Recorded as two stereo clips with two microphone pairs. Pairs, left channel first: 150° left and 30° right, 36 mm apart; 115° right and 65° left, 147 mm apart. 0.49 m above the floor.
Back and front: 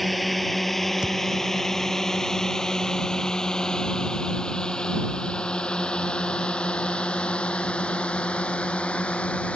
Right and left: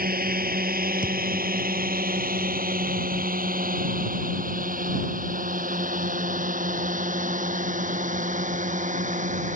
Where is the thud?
95° right.